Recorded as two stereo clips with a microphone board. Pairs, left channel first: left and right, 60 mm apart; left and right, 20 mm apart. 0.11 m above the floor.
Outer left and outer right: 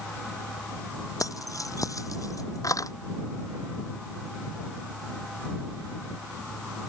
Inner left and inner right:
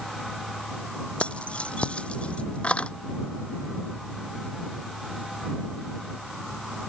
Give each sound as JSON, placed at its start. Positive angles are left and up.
{"t": 1.2, "sound": "keys jangling", "side_deg": 70}